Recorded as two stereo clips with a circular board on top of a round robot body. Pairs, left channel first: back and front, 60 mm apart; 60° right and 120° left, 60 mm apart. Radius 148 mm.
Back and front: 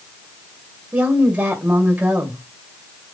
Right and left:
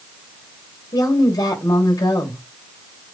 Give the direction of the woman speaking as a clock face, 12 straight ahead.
2 o'clock.